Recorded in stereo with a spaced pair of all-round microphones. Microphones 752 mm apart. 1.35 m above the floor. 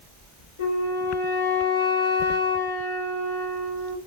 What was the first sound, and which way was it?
A flute, 65° left (ahead or behind).